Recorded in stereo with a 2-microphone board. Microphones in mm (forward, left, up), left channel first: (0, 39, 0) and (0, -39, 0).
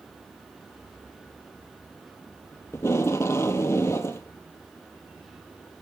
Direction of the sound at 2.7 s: 35° left (ahead or behind).